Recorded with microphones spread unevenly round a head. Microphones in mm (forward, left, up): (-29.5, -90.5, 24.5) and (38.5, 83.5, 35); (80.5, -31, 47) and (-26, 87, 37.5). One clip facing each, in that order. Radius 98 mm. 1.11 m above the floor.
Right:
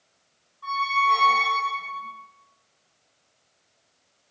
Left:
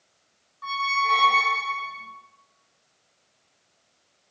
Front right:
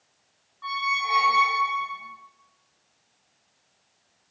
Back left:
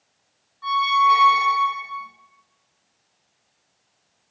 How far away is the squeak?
About 1.0 m.